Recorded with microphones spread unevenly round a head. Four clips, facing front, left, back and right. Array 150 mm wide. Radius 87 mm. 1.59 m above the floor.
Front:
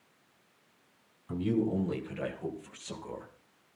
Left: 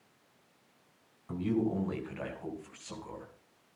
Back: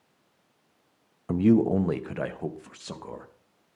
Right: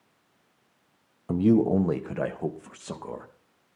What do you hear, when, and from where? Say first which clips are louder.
1.3 s a man speaking: right 10 dB, back 9 dB; 135° right, 1.0 m; by 3.3 s 105° right, 2.5 m